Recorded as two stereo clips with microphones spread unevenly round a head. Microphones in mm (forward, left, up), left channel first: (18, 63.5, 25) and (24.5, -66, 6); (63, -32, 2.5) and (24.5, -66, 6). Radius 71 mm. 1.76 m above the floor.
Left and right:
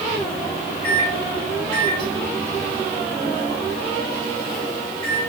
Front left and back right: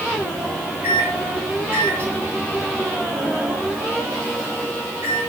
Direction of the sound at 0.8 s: 155° left.